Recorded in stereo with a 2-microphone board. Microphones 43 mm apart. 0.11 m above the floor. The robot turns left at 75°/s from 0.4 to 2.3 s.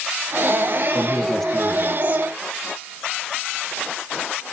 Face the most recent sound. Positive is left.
turn(degrees=-50)